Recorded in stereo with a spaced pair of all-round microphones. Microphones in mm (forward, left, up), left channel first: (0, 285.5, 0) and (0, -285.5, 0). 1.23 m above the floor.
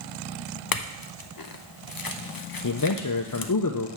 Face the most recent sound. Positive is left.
turn(degrees=35)  # may be behind; listen again after turning